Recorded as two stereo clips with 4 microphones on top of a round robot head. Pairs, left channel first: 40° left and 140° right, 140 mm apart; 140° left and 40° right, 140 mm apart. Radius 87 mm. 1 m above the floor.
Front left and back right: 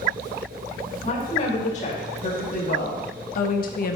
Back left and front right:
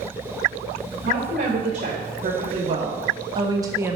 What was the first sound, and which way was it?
A woman speaking, straight ahead.